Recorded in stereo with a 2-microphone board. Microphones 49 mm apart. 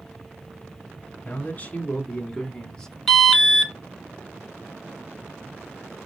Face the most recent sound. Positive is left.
turn(degrees=5)  # may be behind; listen again after turning